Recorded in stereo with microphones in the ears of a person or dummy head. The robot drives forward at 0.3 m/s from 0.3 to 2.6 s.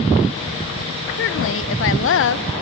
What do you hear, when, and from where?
1.2 s a woman speaking: 60° left (ahead or behind), 0.8 m